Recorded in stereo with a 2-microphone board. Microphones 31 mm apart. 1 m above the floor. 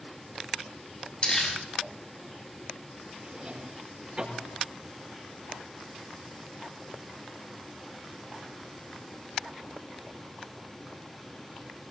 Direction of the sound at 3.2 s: 40° right (ahead or behind).